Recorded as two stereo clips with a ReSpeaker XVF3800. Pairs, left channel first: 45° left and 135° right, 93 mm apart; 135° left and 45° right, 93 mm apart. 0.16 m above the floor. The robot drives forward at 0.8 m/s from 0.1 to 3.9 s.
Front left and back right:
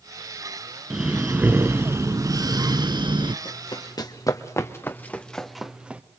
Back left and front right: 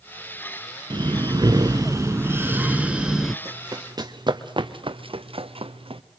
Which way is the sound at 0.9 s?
55° right.